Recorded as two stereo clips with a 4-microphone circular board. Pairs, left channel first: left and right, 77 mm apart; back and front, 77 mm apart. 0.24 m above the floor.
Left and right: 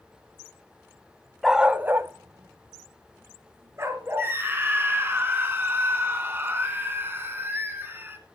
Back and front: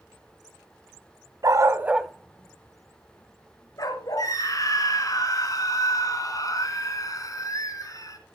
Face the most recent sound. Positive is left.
turn(degrees=-145)